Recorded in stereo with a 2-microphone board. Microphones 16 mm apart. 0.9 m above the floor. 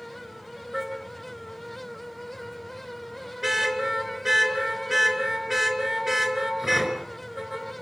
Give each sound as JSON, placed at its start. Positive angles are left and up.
{"t": 0.7, "sound": "a car horn", "side_deg": -30, "distance_m": 4.5}